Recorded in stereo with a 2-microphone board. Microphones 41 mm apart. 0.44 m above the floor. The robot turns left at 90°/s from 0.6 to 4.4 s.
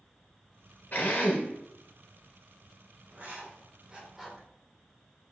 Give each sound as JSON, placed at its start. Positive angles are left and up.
{"t": 0.9, "sound": "a drill", "azimuth_deg": 120, "distance_m": 1.0}
{"t": 3.1, "sound": "writing", "side_deg": -45, "distance_m": 0.8}